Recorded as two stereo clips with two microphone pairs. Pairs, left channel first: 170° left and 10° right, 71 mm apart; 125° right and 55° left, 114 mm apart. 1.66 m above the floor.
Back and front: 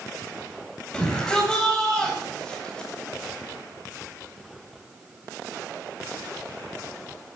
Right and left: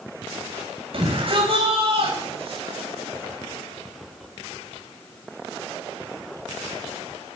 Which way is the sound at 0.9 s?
90° left.